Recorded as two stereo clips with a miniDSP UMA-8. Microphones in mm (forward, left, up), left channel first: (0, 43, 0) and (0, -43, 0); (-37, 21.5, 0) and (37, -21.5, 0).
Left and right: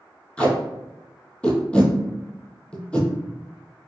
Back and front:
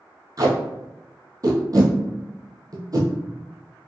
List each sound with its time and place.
0.4 s tape being pulled: 15° left, 1.1 m